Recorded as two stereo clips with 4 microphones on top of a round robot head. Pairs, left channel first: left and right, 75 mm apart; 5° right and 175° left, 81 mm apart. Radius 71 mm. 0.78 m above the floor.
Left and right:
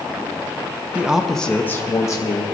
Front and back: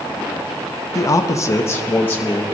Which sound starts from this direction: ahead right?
A man speaking, at 0.9 s.